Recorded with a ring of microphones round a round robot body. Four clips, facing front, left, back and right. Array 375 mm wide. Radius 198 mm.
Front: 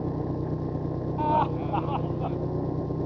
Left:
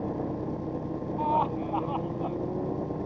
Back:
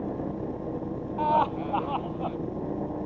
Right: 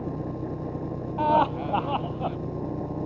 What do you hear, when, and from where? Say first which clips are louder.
0.0 s an engine running: left 1 dB, front 1 dB; 15° right
1.2 s laughter: right 5 dB, back 1 dB; 90° right